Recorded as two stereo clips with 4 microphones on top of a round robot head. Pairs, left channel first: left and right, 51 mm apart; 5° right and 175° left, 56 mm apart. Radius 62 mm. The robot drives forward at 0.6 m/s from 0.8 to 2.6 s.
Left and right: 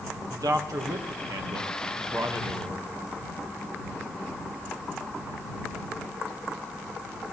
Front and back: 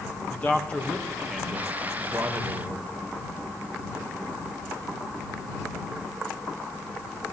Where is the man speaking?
75° right, 1.1 m; by 2.9 s 125° right, 1.3 m.